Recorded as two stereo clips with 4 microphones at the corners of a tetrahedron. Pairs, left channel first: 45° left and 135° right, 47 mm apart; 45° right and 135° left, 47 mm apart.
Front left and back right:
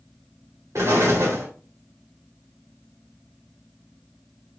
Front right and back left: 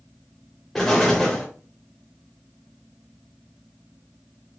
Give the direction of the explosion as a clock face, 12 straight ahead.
4 o'clock.